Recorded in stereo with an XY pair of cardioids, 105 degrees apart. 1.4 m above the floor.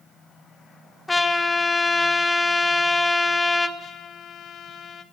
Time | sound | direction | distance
1.1 | a trumpet | 20° left | 2.5 m
3.8 | a trumpet | 60° left | 1.8 m